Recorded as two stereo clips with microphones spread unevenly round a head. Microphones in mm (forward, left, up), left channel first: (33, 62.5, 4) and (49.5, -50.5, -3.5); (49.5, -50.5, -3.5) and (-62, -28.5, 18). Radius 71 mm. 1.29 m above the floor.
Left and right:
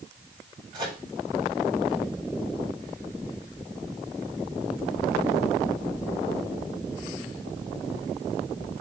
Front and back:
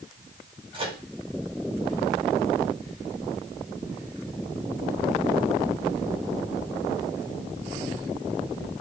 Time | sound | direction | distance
0.7 | a microwave | 145° right | 5 m